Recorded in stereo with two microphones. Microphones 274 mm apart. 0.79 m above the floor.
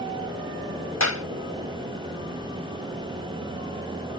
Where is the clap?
75° left (ahead or behind).